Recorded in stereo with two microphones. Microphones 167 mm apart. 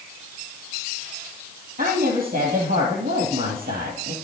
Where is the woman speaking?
60° right (ahead or behind), 3 m.